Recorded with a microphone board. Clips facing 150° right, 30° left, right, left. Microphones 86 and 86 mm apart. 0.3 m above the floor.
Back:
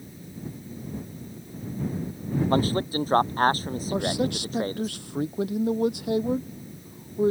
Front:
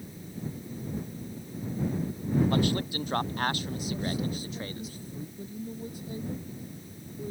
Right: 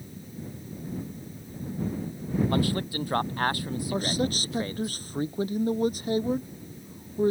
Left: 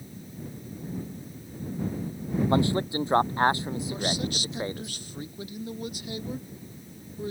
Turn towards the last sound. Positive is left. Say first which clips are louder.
# back 8 dB, right 5 dB
turn(degrees=-140)